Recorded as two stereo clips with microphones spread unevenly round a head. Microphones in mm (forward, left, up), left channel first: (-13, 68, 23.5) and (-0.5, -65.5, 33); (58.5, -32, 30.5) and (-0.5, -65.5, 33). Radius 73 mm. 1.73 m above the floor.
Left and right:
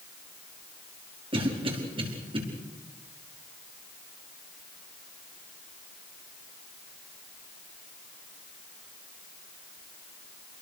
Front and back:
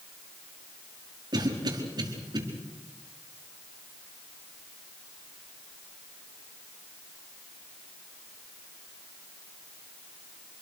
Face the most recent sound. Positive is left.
turn(degrees=-135)